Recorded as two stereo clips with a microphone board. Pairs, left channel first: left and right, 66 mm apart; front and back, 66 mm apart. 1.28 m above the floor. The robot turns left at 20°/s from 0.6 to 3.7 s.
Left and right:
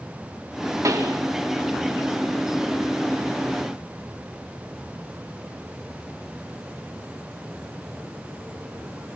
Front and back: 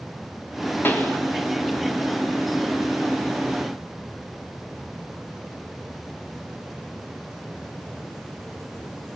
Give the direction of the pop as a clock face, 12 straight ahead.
2 o'clock.